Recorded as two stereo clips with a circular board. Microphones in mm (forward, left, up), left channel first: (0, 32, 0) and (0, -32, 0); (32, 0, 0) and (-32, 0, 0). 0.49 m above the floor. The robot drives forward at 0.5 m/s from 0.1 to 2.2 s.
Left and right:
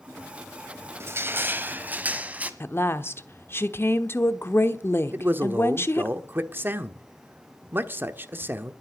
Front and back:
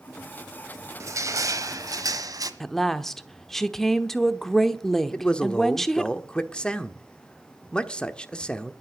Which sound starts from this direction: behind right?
Crushing, at 1.0 s.